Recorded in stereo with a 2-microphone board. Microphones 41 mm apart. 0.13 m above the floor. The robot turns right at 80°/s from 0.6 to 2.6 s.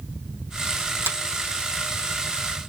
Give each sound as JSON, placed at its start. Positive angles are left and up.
{"t": 1.1, "sound": "a finger snap", "side_deg": -75, "distance_m": 3.0}